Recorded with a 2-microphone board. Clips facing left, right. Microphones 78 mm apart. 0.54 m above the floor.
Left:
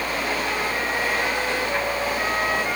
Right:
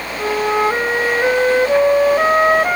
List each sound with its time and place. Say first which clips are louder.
0.2 s a flute: right 14 dB; 60° right (ahead or behind)